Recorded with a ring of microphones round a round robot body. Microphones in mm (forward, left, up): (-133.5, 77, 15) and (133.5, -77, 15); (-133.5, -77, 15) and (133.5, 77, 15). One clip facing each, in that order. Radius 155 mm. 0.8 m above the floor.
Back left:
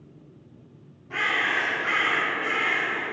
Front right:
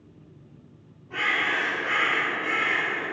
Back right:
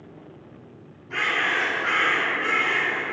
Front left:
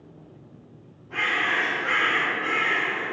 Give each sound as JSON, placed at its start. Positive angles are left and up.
{"t": 1.1, "sound": "a bird", "azimuth_deg": -175, "distance_m": 0.9}